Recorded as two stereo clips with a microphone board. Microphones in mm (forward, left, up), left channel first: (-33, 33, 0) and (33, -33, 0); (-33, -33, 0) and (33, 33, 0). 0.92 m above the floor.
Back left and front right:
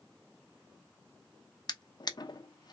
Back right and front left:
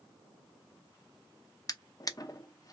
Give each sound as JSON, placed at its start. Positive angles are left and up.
{"t": 1.7, "sound": "a drawer", "azimuth_deg": 175, "distance_m": 0.6}